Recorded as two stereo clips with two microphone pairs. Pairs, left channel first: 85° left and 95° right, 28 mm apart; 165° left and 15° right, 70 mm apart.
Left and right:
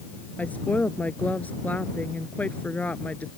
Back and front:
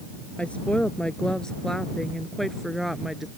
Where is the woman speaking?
95° left; by 3.3 s 70° left.